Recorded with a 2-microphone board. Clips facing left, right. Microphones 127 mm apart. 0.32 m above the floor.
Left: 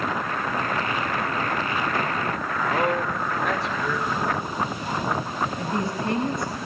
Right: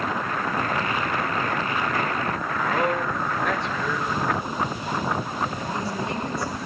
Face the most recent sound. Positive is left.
turn(degrees=60)  # may be behind; listen again after turning